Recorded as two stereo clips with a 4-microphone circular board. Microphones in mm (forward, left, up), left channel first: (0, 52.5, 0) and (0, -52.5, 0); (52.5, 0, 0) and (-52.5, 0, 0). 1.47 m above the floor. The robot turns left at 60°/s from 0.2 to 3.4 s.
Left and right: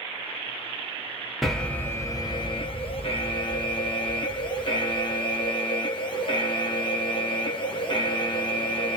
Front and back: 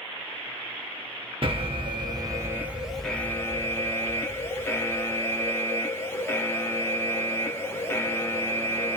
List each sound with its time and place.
1.4 s an alarm: straight behind, 0.8 m; by 9.0 s 65° left, 0.8 m